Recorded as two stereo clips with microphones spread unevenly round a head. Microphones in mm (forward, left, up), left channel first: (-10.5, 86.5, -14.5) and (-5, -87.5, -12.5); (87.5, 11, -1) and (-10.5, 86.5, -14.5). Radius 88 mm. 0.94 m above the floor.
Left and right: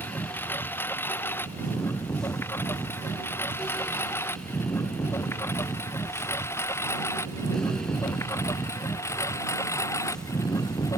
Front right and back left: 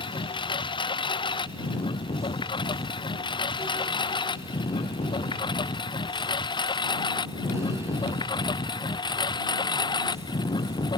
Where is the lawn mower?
10° left; by 11.0 s 15° left.